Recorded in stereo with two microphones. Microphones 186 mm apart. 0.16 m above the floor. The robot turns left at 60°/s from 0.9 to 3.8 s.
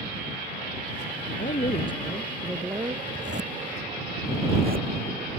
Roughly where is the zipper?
Right.